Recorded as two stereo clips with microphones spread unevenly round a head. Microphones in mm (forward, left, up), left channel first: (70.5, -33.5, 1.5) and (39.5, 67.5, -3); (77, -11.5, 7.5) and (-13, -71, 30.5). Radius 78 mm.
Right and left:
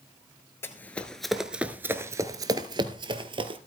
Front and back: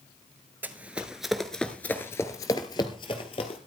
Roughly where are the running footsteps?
Behind right.